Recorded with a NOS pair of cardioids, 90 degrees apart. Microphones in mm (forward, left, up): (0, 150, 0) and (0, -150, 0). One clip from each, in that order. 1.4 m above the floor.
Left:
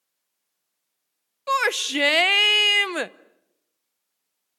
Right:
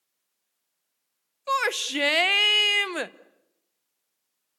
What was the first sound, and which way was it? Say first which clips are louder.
A shout: left 3 dB; 15° left.